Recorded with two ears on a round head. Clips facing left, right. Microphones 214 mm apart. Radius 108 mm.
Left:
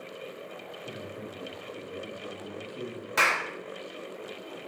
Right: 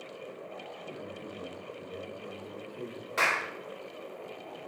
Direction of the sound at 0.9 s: 65° left (ahead or behind).